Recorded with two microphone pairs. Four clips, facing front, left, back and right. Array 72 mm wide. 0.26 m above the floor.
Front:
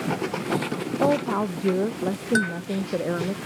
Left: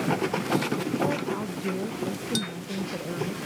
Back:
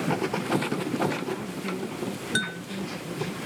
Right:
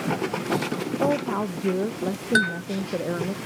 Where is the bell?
70° right.